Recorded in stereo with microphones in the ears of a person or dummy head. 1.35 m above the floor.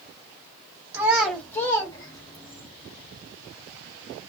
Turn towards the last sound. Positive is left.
turn(degrees=30)  # may be behind; listen again after turning